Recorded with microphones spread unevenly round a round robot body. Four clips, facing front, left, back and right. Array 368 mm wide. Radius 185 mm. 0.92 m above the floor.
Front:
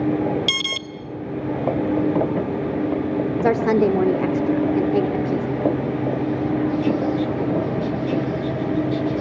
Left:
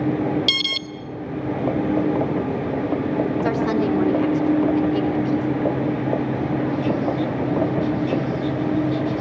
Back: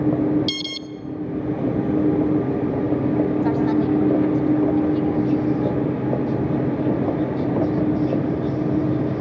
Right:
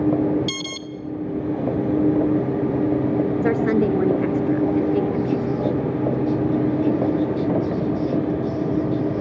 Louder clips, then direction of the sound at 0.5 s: Left 1 dB, even; 15° left.